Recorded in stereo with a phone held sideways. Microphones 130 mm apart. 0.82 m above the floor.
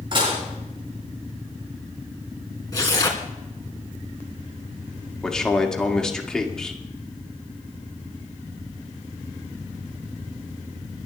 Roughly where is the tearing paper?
Left.